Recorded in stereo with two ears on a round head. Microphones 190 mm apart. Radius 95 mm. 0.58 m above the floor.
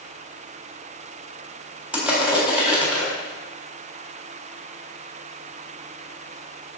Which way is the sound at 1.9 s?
5° right (ahead or behind).